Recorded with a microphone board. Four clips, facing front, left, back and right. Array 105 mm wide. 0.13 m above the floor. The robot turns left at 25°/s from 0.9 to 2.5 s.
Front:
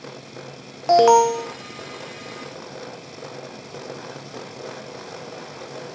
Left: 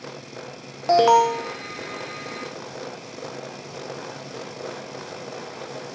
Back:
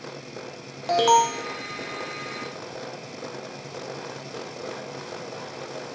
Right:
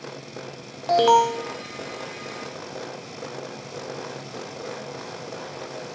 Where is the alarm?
30° left, 0.7 m; by 1.5 s 15° left, 0.7 m.